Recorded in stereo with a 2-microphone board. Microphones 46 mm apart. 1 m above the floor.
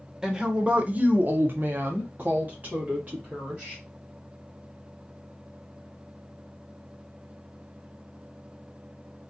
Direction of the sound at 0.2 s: 15° right (ahead or behind).